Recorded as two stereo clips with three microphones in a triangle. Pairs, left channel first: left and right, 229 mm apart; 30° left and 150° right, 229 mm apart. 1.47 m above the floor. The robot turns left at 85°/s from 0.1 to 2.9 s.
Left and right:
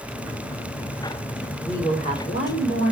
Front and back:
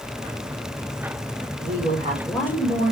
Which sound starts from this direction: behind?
A woman speaking, at 1.6 s.